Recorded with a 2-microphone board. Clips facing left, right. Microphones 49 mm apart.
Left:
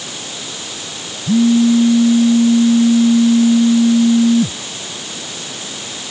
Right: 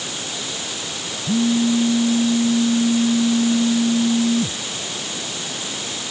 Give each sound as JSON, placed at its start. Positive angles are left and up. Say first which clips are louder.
{"t": 1.3, "sound": "a phone buzzing", "louder": "left 7 dB", "side_deg": 65}